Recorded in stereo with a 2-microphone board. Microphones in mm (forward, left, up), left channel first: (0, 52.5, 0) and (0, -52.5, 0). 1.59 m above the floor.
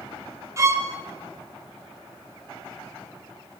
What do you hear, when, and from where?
0.6 s a violin: 25° right (ahead or behind), 4 m